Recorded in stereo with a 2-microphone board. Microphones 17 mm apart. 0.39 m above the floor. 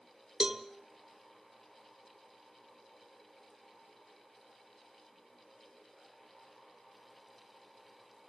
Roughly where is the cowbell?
Right.